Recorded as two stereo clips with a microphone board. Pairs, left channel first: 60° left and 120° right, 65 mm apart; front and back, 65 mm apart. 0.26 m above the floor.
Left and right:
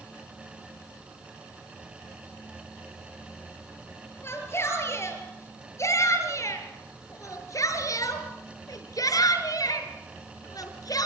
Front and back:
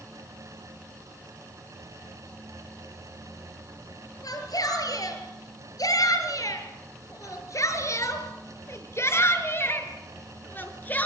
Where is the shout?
10° left, 6.5 m; by 11.1 s 60° left, 5 m.